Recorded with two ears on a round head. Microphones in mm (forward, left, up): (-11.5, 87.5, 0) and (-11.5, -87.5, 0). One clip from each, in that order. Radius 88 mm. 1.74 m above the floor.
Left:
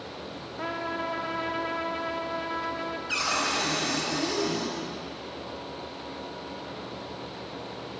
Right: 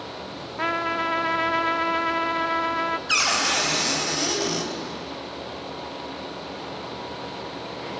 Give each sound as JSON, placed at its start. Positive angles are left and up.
{"t": 0.6, "sound": "a trumpet", "side_deg": -60, "distance_m": 0.9}
{"t": 3.1, "sound": "a cupboard door", "side_deg": -55, "distance_m": 3.5}